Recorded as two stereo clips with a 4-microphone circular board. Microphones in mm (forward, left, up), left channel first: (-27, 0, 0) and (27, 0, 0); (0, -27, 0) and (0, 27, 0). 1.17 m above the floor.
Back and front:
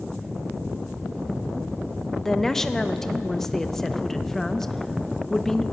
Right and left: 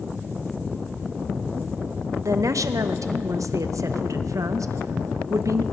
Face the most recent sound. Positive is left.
turn(degrees=95)